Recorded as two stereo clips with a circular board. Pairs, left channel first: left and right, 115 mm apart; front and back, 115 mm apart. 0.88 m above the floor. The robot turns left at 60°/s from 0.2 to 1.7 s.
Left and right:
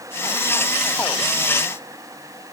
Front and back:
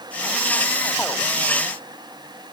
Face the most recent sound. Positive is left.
No sound to turn to.